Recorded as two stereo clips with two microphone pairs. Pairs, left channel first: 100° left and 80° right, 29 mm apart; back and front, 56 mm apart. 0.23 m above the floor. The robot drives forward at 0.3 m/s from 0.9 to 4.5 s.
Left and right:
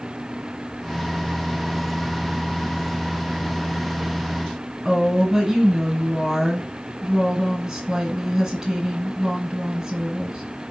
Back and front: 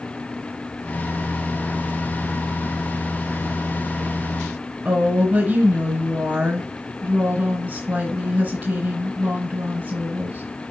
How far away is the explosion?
No explosion in this recording.